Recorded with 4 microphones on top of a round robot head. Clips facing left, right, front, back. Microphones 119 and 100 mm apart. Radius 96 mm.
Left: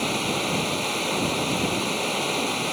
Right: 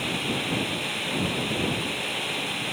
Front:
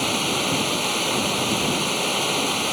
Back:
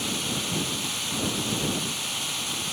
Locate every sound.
0.0 s running water: 30° left